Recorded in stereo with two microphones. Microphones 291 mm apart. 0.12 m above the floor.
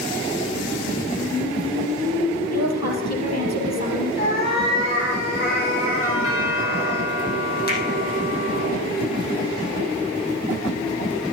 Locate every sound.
2.5 s a woman speaking: 65° left (ahead or behind), 4 m
4.2 s a cat meowing: 35° left (ahead or behind), 4 m
6.0 s a doorbell: 50° left (ahead or behind), 4.5 m
7.7 s a finger snap: 35° left (ahead or behind), 4 m